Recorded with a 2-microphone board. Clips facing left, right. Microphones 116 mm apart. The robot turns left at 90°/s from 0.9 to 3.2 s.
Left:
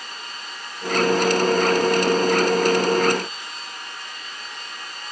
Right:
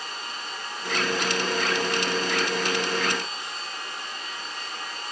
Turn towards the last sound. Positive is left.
No sound to turn to.